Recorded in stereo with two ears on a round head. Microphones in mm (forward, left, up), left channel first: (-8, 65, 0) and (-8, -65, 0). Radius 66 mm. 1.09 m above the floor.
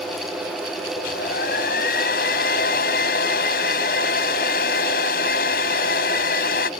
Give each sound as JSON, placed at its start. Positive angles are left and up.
{"t": 1.0, "sound": "a hair dryer", "side_deg": 75}